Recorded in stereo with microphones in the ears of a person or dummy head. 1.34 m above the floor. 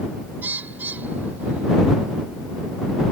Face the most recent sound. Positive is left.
turn(degrees=-10)  # may be behind; listen again after turning